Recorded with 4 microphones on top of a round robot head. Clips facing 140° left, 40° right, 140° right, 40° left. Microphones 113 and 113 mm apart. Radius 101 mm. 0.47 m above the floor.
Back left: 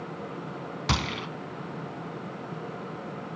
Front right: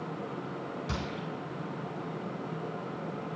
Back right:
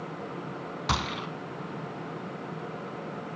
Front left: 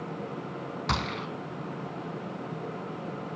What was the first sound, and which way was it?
A gunshot, 135° left.